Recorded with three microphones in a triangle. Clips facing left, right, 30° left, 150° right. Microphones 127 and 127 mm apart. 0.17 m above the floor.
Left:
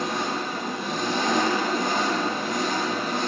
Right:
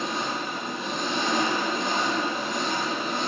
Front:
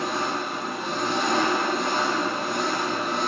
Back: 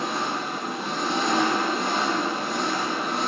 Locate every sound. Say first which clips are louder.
0.0 s an engine running: left 2 dB, front 1 dB; 120° left, 8 m